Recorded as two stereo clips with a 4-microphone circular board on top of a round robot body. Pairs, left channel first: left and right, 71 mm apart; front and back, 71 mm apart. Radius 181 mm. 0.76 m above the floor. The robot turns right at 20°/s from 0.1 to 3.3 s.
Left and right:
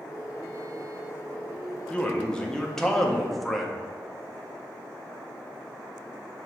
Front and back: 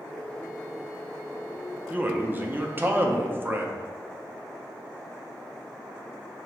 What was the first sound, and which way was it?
A man speaking, 145° left.